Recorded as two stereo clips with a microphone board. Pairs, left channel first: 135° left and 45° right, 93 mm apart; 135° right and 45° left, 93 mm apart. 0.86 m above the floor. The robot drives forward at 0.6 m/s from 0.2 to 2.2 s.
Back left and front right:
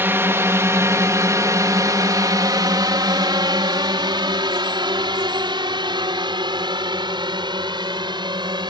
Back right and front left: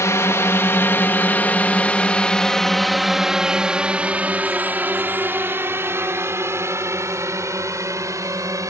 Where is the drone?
100° right; by 8.7 s 10° right.